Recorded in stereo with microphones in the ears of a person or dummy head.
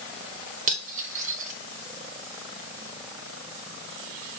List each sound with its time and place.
0.7 s cutlery clinking: 45° right (ahead or behind), 1.6 m